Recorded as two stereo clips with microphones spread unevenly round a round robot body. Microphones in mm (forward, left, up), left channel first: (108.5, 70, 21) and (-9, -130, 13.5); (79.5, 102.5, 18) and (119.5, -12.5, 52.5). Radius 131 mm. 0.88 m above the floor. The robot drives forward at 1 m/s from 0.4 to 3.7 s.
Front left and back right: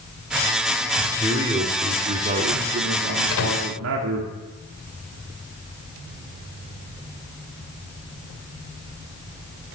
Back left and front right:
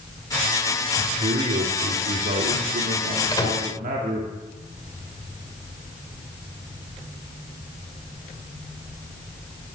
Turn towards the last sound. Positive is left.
turn(degrees=55)